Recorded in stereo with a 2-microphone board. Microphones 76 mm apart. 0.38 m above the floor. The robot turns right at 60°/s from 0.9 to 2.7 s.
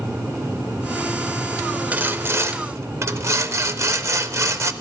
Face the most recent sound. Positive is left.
turn(degrees=-100)